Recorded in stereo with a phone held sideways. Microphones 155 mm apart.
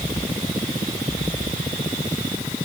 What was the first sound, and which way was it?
Only background noise.